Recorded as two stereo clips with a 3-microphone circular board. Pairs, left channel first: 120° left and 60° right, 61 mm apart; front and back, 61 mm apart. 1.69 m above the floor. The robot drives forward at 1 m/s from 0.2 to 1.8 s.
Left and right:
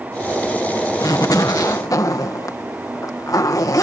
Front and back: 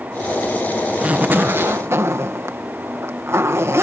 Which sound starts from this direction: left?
A zipper, at 1.0 s.